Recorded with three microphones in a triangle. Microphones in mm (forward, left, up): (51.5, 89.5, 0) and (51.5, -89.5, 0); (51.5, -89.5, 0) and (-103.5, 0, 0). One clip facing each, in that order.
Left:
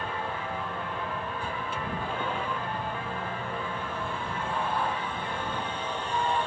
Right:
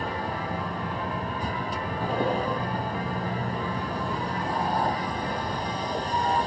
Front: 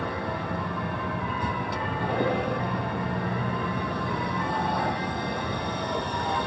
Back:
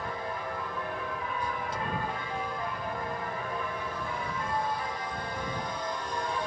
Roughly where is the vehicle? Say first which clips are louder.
Right 3 dB, front 5 dB; ahead right.